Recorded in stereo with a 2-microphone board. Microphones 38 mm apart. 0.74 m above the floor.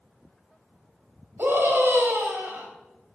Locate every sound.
1.4 s a scream: 75° right (ahead or behind), 3.5 m